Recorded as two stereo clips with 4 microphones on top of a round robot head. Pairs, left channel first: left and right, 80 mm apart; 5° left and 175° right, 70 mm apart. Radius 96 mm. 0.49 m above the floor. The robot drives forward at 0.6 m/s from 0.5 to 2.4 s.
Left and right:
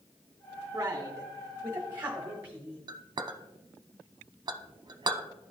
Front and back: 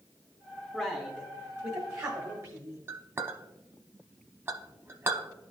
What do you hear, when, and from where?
0.7 s a man speaking: 90° right, 0.9 m; by 2.8 s 155° right, 1.3 m
2.9 s a clink: 120° right, 0.6 m